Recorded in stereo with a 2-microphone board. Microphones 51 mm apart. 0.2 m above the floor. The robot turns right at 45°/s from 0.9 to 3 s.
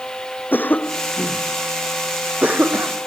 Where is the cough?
40° left (ahead or behind); by 3.1 s 55° right (ahead or behind).